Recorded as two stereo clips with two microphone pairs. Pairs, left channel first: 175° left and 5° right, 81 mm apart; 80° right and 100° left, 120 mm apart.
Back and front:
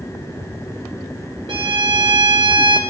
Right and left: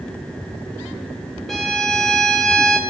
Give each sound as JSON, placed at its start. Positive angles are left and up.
{"t": 1.5, "sound": "a violin", "azimuth_deg": 10, "distance_m": 1.6}